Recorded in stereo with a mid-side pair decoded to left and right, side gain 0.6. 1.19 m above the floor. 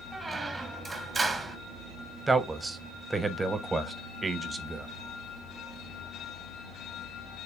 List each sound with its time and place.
0.1 s a squeak: 20° right, 0.7 m
2.3 s a man speaking: 15° right, 0.6 m